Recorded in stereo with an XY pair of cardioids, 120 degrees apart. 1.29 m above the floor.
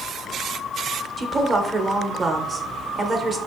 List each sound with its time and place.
1.2 s a woman speaking: 25° right, 0.7 m